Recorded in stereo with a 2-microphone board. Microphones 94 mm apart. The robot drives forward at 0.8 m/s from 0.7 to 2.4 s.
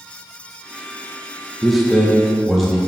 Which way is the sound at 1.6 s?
Centre (ahead or behind).